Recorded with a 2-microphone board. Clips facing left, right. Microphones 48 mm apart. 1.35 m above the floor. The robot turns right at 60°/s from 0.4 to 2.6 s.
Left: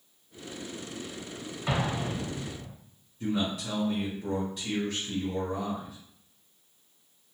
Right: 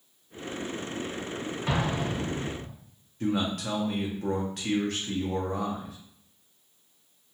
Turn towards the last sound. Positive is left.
turn(degrees=-65)  # may be behind; listen again after turning